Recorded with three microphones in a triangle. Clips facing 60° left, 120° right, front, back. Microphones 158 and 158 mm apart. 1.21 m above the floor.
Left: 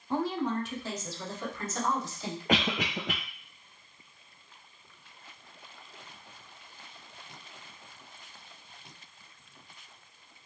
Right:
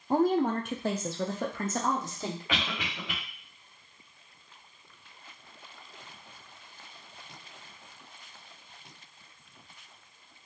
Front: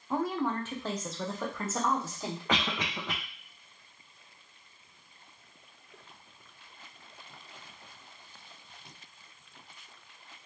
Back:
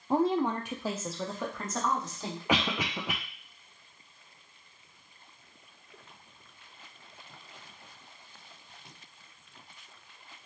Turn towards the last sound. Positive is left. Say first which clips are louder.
# left 6 dB, back 4 dB
turn(degrees=100)